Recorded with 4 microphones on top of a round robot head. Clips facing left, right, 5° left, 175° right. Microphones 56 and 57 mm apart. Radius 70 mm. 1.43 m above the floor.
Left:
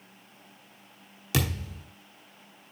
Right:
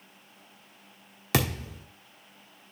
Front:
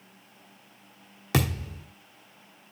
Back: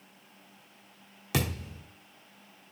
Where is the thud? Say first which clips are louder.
Right 2 dB, front 4 dB; 55° right, 1.2 m.